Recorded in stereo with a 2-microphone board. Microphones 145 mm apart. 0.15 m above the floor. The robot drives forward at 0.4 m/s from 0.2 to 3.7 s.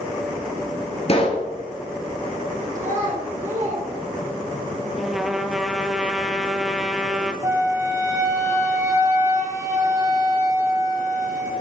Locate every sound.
1.1 s a pop: 45° left (ahead or behind), 1.4 m
2.8 s a child speaking: 60° right (ahead or behind), 2 m; by 4.7 s 55° right (ahead or behind), 2.5 m
5.0 s a trumpet: centre (ahead or behind), 0.7 m
7.4 s a flute: 20° right (ahead or behind), 1.0 m